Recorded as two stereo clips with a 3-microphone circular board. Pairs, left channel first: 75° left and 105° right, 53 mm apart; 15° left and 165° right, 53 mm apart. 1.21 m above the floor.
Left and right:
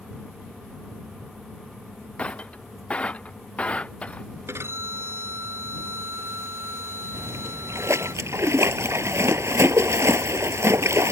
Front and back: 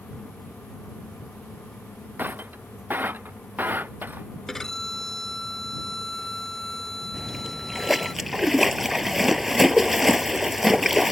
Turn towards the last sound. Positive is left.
turn(degrees=-80)